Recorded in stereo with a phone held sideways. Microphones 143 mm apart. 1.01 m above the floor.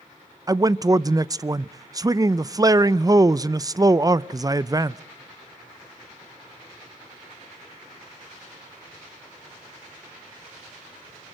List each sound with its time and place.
0.5 s a man speaking: 25° right (ahead or behind), 0.5 m